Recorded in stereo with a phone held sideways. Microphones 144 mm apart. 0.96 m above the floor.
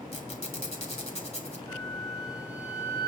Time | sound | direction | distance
0.1 | a squeak | 50° left (ahead or behind) | 2.5 m
1.7 | a flute | 25° left (ahead or behind) | 1.8 m